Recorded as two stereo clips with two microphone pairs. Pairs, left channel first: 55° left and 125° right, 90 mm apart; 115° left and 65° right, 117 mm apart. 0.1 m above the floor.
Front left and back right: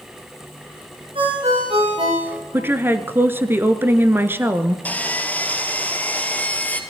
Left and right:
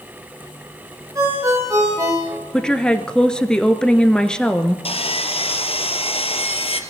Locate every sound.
1.1 s a ringtone: 125° right, 9.5 m
2.5 s a woman speaking: 165° right, 1.3 m
4.8 s sawing: 125° left, 1.9 m